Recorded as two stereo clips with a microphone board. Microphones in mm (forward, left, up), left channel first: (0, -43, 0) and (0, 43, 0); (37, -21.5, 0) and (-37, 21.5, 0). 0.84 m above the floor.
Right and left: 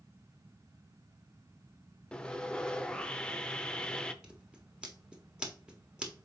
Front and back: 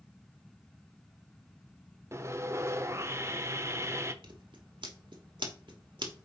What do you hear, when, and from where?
2.1 s sawing: 165° right, 0.6 m
4.2 s scissors: 170° left, 1.4 m